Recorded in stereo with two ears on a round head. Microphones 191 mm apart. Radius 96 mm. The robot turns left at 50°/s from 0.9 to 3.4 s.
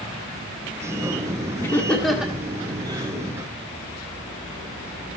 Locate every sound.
1.6 s laughter: 15° left (ahead or behind), 1.4 m; by 3.2 s 25° right (ahead or behind), 1.4 m